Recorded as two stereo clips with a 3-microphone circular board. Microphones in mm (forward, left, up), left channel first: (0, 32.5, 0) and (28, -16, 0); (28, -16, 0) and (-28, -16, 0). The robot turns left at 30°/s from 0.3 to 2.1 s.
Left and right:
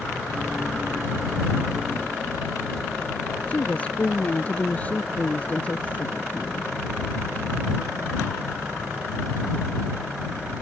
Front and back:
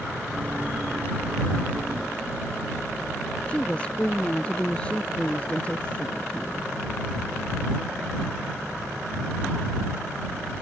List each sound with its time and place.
3.5 s a woman speaking: 60° left